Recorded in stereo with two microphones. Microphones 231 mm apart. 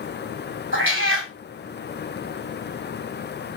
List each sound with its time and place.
0.7 s a cat meowing: 60° right (ahead or behind), 1.2 m